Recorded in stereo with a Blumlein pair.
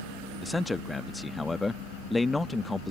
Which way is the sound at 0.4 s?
10° left.